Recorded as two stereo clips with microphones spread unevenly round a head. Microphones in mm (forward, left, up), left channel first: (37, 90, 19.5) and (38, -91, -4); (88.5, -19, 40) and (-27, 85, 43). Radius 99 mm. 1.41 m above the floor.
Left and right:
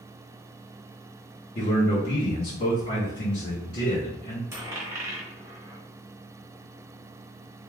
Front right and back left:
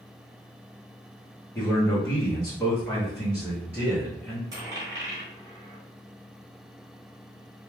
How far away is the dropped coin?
About 0.9 m.